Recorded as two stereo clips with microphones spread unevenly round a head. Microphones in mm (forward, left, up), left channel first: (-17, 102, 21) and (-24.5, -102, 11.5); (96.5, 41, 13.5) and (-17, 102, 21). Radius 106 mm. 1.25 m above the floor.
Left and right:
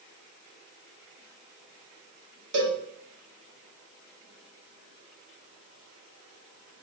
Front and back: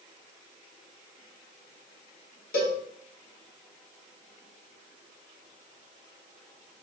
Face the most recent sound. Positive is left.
turn(degrees=-50)